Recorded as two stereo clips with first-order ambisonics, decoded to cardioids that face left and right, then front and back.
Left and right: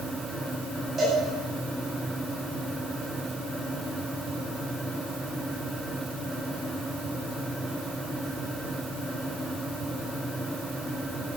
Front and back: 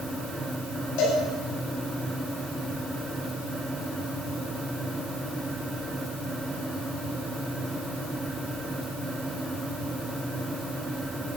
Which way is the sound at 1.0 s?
20° right.